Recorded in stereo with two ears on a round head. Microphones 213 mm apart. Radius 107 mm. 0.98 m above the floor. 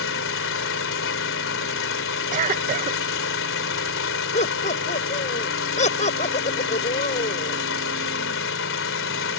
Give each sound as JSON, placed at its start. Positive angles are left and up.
{"t": 0.0, "sound": "an engine running", "side_deg": 55}
{"t": 2.3, "sound": "a cough", "side_deg": -30}
{"t": 4.3, "sound": "laughter", "side_deg": 30}